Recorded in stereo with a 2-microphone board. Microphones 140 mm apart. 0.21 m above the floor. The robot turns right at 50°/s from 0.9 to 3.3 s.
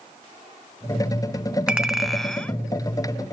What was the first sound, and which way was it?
A clink, 5° right (ahead or behind).